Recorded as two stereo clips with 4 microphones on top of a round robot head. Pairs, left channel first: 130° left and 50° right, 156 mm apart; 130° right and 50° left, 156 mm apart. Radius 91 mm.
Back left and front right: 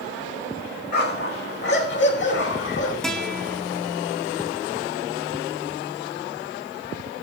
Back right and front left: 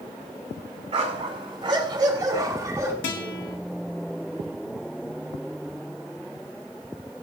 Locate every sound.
0.9 s a dog barking: 100° left, 3.5 m; by 2.9 s 125° left, 4 m
3.0 s a guitar: 145° right, 3 m